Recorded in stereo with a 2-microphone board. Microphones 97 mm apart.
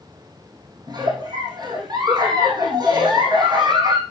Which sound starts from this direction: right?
A giggle, at 0.9 s.